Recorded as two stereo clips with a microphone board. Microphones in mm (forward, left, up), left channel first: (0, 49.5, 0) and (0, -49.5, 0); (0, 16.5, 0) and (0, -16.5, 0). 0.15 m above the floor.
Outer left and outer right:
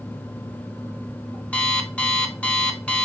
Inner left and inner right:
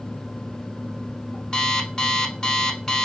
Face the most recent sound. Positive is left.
turn(degrees=15)  # may be behind; listen again after turning